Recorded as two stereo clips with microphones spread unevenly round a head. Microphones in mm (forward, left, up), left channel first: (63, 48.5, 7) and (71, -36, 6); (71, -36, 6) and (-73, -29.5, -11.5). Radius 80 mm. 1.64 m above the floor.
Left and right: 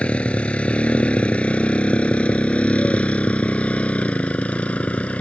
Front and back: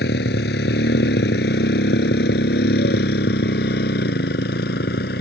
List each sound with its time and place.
0.0 s a motorcycle: 20° left